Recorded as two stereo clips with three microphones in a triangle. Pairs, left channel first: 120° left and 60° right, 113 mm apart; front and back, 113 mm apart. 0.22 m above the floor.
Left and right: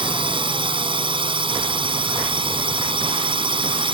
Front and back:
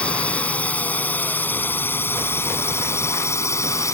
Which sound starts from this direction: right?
A drone, at 0.0 s.